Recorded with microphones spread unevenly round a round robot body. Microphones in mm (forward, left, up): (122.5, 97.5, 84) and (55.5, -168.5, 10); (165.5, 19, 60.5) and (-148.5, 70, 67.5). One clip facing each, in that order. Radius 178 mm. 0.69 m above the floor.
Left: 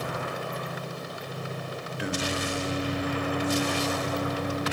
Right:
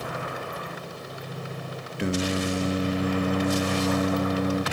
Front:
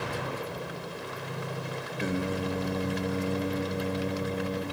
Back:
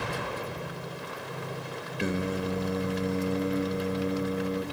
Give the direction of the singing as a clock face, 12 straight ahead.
4 o'clock.